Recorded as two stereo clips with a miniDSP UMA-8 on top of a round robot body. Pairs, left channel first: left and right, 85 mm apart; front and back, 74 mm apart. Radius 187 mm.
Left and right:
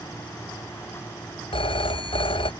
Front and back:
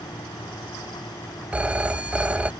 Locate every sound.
1.5 s a phone ringing: 105° left